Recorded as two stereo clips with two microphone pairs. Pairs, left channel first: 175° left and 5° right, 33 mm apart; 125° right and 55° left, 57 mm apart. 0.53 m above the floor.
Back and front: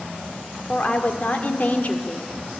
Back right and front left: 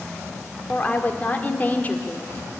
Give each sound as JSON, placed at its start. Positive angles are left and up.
{"t": 0.7, "sound": "a woman speaking", "azimuth_deg": -170, "distance_m": 1.6}